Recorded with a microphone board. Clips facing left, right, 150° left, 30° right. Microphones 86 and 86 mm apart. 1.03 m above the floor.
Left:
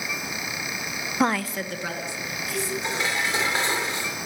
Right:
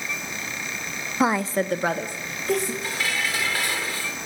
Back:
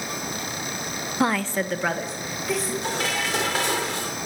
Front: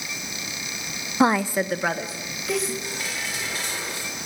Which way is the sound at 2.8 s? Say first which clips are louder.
Left 1 dB, back 6 dB; 155° left.